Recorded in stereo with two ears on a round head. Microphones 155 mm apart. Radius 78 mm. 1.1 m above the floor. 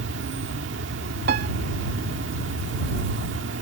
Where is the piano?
65° right (ahead or behind).